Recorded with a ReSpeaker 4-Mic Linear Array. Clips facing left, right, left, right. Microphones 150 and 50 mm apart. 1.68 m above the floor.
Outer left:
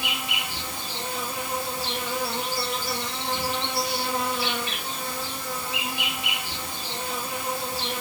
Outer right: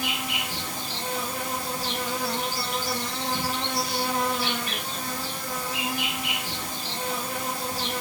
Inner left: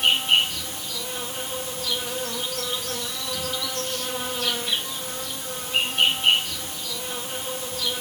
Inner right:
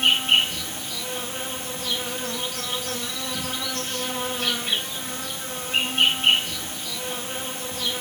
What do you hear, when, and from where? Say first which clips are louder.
0.0 s an insect: outer right 1 dB, inner right 1 dB; 45° right (ahead or behind), 2 m